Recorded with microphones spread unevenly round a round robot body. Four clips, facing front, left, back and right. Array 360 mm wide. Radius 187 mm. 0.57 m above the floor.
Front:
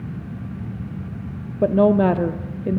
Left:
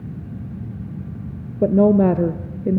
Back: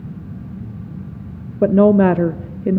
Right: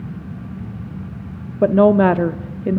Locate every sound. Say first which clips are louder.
1.6 s a woman speaking: right 2 dB, back 4 dB; 155° right, 0.6 m